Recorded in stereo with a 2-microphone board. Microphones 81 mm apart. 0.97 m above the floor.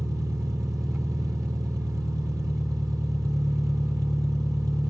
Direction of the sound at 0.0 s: 40° right (ahead or behind).